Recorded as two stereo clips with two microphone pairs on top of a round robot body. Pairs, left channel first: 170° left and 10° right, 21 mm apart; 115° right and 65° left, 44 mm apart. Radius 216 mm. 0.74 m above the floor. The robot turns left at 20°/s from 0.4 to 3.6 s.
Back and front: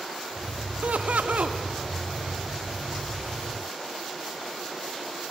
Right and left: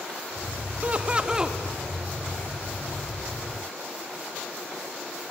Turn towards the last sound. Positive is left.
turn(degrees=-50)